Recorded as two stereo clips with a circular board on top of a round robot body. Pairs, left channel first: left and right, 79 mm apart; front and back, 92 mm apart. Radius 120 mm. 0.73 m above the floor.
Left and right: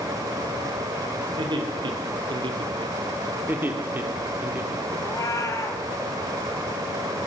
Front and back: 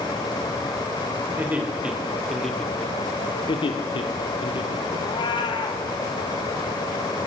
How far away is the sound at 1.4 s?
About 3.5 m.